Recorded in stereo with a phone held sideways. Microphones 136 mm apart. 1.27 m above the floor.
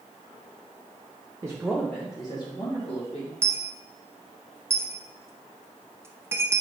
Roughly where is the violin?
I don't hear a violin.